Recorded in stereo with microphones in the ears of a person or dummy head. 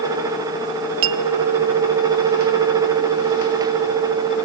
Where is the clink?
70° right (ahead or behind), 0.6 m.